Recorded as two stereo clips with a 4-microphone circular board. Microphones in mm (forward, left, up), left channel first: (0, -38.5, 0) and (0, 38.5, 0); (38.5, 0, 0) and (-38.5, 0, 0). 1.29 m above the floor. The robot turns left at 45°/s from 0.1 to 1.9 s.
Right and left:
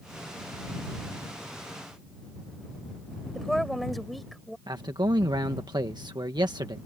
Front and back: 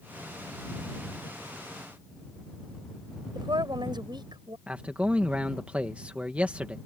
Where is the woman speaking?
Straight behind.